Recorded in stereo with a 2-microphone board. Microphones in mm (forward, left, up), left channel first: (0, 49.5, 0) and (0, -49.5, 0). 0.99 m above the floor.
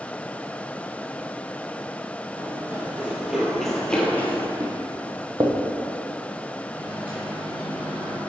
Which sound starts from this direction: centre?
A microwave, at 6.7 s.